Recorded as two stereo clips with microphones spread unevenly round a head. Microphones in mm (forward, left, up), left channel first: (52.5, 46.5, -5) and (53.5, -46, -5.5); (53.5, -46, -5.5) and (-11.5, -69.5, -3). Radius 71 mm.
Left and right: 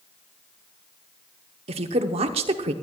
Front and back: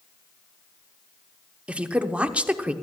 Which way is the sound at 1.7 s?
85° right.